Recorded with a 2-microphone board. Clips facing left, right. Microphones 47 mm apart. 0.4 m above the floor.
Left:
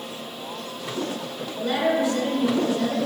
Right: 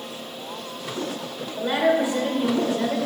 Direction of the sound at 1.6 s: 25° right (ahead or behind).